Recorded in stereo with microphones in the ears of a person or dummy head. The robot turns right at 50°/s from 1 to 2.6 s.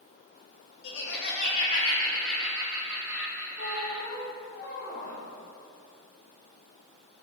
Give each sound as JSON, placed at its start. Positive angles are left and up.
{"t": 0.8, "sound": "laughter", "azimuth_deg": 115, "distance_m": 2.0}
{"t": 3.6, "sound": "a squeak", "side_deg": 45, "distance_m": 1.7}